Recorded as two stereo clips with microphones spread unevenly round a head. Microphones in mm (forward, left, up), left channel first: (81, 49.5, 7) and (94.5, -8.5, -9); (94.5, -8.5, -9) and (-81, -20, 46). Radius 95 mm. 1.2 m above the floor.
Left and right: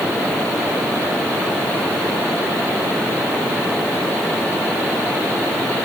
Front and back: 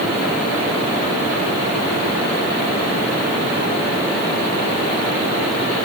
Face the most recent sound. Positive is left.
No sound to turn to.